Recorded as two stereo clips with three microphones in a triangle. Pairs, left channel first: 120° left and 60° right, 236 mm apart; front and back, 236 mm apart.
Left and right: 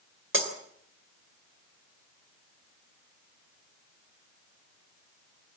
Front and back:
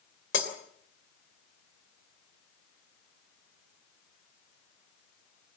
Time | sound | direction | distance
0.3 | breaking glass | 30° right | 3 m